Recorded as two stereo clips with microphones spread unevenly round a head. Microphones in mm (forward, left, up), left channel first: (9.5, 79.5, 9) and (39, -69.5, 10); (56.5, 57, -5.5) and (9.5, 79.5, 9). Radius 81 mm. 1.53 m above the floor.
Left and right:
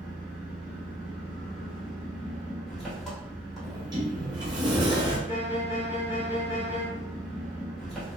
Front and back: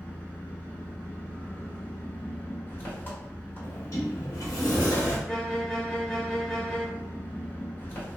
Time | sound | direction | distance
0.0 | an engine running | 10° left | 0.9 m
3.6 | a sliding door | 15° right | 0.9 m
5.3 | a violin | 70° left | 1.0 m